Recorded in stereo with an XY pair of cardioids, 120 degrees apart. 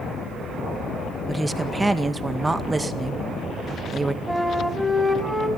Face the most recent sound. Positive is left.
turn(degrees=-5)